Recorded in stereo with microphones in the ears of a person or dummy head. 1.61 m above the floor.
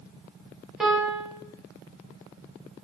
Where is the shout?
I don't hear a shout.